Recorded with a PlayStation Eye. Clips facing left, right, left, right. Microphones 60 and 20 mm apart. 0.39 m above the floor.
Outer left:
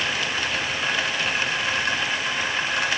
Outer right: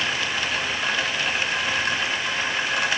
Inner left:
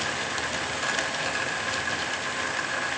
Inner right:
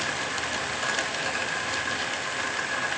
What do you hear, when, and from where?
Only background noise.